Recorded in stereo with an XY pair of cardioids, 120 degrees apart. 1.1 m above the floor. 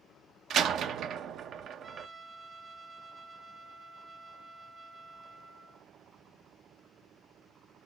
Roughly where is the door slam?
Ahead right.